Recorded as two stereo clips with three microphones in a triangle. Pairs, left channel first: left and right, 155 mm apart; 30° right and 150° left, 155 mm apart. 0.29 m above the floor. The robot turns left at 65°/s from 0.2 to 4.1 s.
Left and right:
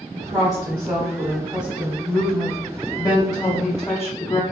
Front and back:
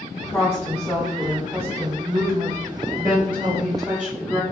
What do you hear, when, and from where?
0.1 s a woman speaking: 70° right, 1.4 m; by 4.4 s 40° left, 1.4 m